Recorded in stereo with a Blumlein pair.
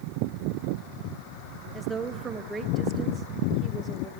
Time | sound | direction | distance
1.7 | a woman speaking | 10° right | 1.3 m